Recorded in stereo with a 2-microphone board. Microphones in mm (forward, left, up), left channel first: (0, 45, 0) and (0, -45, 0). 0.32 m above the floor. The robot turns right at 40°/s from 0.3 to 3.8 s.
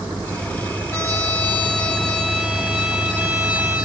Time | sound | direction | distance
0.9 | a trumpet | 100° left | 1.7 m